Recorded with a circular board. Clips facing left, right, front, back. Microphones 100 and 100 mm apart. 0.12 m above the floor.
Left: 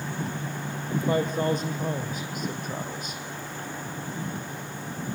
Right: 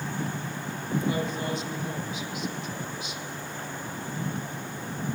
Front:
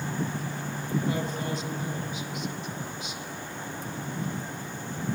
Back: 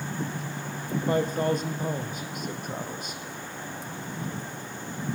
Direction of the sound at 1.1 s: 135° left.